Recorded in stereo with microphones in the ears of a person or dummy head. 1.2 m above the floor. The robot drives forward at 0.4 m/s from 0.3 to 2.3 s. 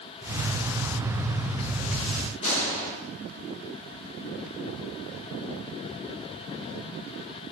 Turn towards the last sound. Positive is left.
turn(degrees=35)  # may be behind; listen again after turning